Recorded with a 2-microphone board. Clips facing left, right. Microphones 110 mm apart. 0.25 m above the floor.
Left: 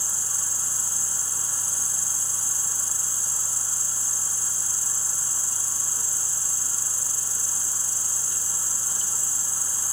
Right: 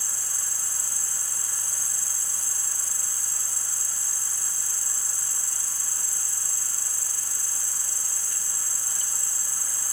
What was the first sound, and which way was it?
An insect, 55° right (ahead or behind).